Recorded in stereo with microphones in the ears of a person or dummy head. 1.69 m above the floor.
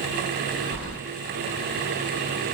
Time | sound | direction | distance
0.7 | keys jangling | 55° left (ahead or behind) | 1.2 m